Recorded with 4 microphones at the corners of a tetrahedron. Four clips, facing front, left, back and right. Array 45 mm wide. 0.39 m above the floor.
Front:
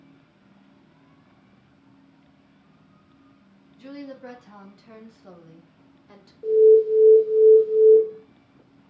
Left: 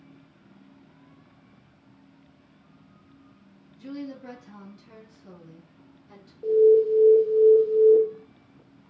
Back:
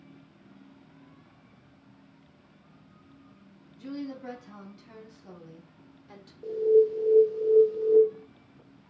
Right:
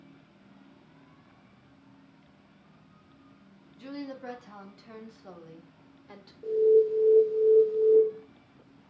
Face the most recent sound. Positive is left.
turn(degrees=70)